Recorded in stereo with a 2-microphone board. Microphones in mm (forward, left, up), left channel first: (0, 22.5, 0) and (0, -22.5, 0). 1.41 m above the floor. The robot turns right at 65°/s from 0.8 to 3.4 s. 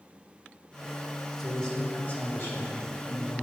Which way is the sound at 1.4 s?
5° left.